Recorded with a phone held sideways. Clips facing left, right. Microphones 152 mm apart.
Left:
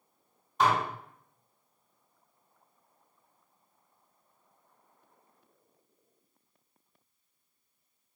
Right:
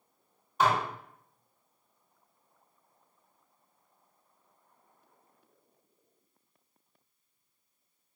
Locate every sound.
0.6 s dishes clattering: centre (ahead or behind), 1.3 m